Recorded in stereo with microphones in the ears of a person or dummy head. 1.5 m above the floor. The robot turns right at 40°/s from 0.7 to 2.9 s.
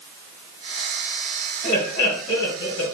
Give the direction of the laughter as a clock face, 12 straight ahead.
11 o'clock.